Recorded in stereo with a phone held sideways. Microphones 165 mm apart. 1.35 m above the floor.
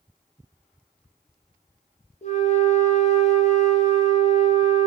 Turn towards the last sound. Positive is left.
turn(degrees=45)  # may be behind; listen again after turning